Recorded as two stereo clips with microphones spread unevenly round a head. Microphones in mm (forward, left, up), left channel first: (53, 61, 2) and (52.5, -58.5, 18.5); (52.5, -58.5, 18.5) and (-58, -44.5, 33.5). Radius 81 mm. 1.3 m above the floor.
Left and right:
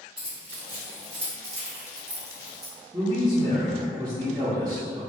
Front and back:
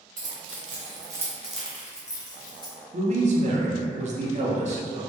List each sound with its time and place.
0.2 s keys jangling: 175° right, 1.0 m; by 2.7 s 55° right, 1.1 m
2.9 s a man speaking: 160° right, 0.6 m